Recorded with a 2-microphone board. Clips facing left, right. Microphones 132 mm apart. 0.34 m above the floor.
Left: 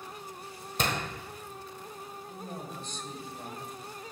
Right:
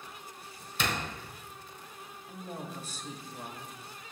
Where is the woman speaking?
5° right (ahead or behind), 1.4 m.